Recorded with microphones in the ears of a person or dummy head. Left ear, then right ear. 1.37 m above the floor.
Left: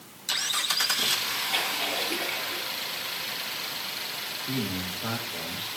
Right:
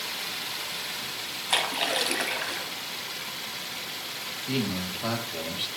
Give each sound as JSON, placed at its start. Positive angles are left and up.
{"t": 1.5, "sound": "a splash", "side_deg": -70, "distance_m": 3.0}
{"t": 4.5, "sound": "a man speaking", "side_deg": -25, "distance_m": 3.0}